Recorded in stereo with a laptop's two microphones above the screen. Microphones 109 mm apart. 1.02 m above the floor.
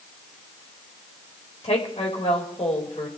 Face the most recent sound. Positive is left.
turn(degrees=80)